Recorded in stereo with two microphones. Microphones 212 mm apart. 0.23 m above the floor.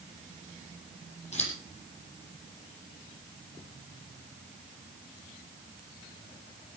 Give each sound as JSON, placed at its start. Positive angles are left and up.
{"t": 1.3, "sound": "scissors", "side_deg": 30, "distance_m": 8.5}